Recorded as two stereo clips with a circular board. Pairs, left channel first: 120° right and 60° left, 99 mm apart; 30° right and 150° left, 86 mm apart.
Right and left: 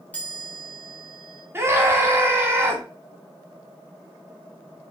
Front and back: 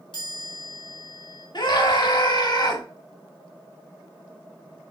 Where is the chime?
45° right, 3.5 m.